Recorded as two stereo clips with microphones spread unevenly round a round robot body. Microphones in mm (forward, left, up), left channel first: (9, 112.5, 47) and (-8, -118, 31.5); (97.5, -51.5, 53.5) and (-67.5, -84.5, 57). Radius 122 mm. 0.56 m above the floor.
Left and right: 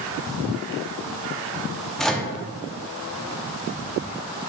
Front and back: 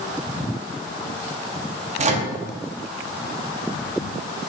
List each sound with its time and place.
2.0 s a microwave: straight behind, 0.6 m